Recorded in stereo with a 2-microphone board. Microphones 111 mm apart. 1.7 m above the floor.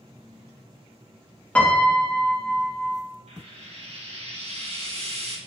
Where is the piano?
10° left (ahead or behind), 0.7 m.